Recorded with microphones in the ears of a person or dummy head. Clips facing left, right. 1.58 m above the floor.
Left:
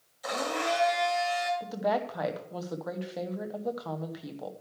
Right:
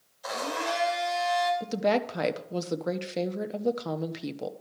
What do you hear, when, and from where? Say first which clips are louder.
0.2 s a blender: left 1 dB; 35° left (ahead or behind), 3 m
1.6 s a woman speaking: right 3 dB; 40° right (ahead or behind), 0.9 m